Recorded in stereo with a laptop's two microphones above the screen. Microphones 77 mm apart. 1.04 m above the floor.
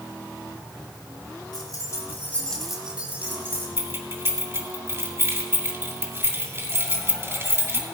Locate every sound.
1.5 s keys jangling: 60° left (ahead or behind), 1.9 m; by 3.7 s 35° right (ahead or behind), 2.5 m
3.8 s keys jangling: 35° right (ahead or behind), 2.5 m